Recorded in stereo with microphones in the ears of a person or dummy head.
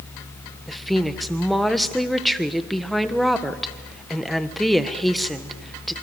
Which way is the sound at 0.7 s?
Centre (ahead or behind).